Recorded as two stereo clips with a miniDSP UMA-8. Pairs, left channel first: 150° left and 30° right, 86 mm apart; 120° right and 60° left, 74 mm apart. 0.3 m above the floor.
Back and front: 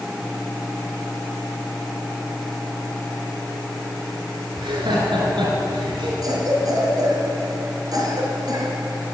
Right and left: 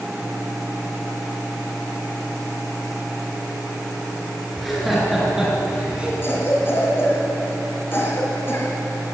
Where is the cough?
65° right, 3.5 m.